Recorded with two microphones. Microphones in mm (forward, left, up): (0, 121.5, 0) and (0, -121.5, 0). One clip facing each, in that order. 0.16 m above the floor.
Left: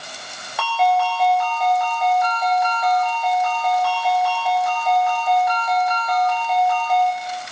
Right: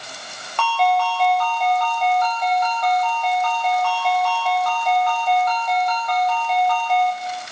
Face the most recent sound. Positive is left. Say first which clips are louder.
# left 1 dB
turn(degrees=5)  # may be behind; listen again after turning